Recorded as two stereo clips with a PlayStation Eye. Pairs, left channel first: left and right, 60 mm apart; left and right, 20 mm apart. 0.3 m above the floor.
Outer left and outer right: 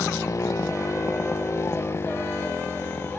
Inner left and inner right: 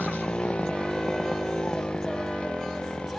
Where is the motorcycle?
60° left (ahead or behind); by 3.2 s 35° left (ahead or behind).